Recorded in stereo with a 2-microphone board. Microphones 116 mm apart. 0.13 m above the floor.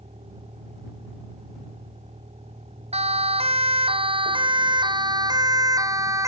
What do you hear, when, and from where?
0.0 s a vehicle: 65° right (ahead or behind); by 6.3 s 70° right (ahead or behind)
2.9 s a siren: 65° right (ahead or behind); by 6.3 s 30° right (ahead or behind)